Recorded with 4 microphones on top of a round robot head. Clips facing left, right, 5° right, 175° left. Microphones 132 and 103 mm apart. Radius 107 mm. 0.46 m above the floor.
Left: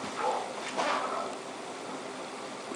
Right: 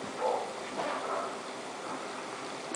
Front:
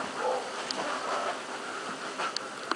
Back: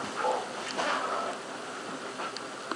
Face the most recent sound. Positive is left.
turn(degrees=-95)